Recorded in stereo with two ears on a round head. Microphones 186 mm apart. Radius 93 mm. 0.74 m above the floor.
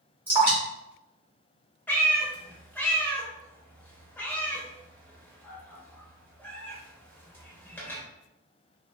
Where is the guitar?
No guitar in this recording.